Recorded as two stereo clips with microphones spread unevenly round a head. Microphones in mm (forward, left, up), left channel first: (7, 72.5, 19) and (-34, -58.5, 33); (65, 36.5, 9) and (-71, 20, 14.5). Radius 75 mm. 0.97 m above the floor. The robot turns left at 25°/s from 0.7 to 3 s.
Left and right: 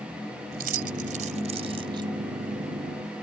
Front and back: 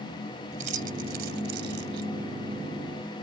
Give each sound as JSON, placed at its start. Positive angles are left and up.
{"t": 0.5, "sound": "keys jangling", "azimuth_deg": -130}